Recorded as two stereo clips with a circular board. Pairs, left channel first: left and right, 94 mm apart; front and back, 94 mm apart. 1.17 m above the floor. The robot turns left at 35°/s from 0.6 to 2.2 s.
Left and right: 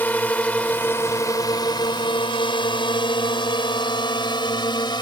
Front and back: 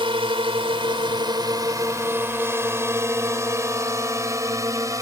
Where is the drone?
160° left; by 5.0 s 125° left.